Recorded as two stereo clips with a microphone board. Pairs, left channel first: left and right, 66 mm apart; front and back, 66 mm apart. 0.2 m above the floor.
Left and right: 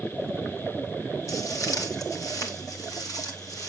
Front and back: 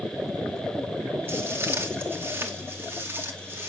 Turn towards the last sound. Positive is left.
turn(degrees=120)